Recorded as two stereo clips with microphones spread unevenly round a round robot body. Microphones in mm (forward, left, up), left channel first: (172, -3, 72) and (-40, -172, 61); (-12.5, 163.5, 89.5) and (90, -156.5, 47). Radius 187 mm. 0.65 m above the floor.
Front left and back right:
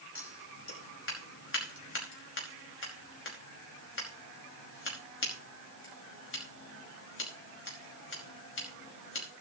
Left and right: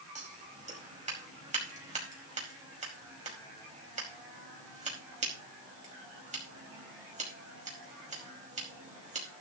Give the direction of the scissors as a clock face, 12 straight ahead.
12 o'clock.